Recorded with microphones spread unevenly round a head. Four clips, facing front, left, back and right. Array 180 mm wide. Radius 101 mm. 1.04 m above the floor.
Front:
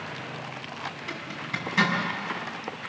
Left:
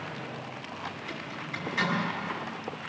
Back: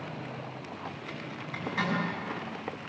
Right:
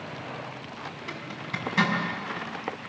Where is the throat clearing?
I don't hear throat clearing.